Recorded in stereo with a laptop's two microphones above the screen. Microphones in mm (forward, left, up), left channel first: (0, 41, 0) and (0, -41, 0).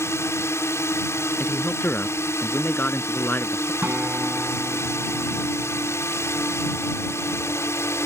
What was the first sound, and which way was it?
A drone, 30° left (ahead or behind).